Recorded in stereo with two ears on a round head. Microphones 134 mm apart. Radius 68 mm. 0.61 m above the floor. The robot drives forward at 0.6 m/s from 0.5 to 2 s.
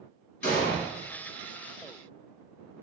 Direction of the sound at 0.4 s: 60° left (ahead or behind).